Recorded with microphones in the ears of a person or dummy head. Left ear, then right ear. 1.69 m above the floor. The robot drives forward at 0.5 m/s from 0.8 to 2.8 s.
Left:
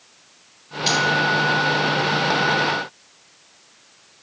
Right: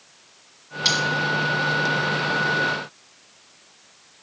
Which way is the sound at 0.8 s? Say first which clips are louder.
Left 1 dB; 50° right (ahead or behind).